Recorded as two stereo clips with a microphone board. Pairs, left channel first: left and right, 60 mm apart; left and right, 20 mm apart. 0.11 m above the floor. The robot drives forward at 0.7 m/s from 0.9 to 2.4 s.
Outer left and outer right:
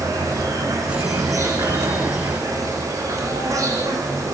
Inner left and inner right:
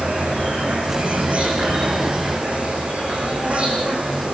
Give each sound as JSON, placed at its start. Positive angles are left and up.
{"t": 0.0, "sound": "an insect", "side_deg": -75, "distance_m": 9.0}